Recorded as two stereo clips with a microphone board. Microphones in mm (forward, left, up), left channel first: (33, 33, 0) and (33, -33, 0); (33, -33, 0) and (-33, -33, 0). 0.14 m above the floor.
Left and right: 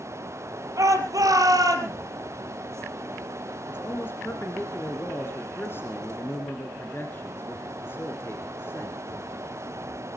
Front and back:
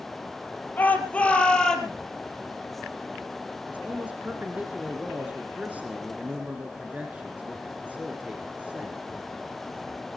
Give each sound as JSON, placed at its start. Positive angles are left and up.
{"t": 0.8, "sound": "a shout", "azimuth_deg": -65, "distance_m": 4.0}
{"t": 3.7, "sound": "a man speaking", "azimuth_deg": 120, "distance_m": 2.0}